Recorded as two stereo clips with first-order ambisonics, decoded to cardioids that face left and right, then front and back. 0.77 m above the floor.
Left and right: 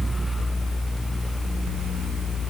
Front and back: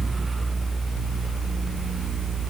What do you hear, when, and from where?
Only background noise.